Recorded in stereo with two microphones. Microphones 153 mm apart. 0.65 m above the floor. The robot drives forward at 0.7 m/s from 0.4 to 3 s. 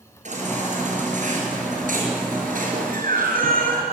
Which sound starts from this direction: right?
A baby crying, at 0.2 s.